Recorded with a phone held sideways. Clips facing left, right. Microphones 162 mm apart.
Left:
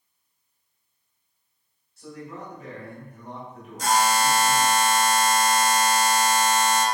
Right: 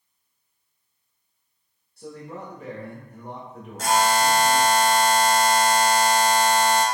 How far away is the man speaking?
About 1.2 m.